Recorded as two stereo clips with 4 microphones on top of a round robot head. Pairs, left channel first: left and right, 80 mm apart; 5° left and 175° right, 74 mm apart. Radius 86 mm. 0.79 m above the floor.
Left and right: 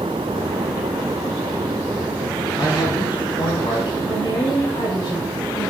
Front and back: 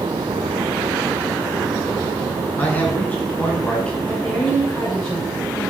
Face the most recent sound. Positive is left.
turn(degrees=55)